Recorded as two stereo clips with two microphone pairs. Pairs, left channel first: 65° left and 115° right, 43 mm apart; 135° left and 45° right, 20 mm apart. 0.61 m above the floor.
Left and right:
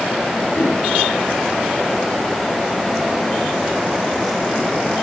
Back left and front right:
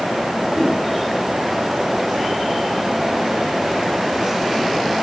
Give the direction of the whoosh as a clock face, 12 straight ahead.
10 o'clock.